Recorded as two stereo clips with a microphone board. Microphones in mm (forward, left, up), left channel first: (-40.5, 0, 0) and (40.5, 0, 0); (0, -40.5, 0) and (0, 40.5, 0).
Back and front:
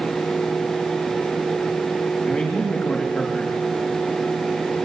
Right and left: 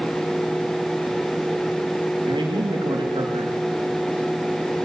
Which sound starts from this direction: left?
A man speaking, at 2.2 s.